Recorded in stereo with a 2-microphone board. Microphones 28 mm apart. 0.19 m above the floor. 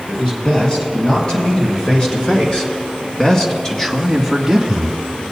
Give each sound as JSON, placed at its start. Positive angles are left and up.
{"t": 0.1, "sound": "a man speaking", "side_deg": 35, "distance_m": 3.5}